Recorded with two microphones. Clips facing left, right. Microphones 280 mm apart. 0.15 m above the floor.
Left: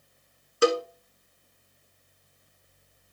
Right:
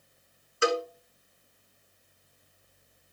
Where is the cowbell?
50° left (ahead or behind), 0.9 m.